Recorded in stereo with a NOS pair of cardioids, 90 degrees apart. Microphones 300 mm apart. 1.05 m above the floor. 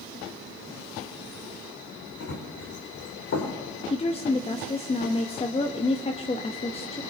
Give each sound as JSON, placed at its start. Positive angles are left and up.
{"t": 2.2, "sound": "running footsteps", "azimuth_deg": 55, "distance_m": 4.0}
{"t": 3.9, "sound": "a woman speaking", "azimuth_deg": 20, "distance_m": 1.0}